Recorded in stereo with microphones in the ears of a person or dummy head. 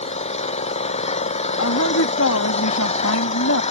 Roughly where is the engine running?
Left.